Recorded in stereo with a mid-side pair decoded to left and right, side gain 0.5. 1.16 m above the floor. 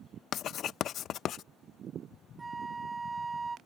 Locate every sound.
0.3 s writing: 60° left
2.4 s a flute: 20° right